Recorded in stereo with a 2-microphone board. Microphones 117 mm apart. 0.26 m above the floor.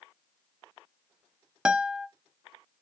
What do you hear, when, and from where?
1.6 s a guitar: 5° right (ahead or behind), 0.7 m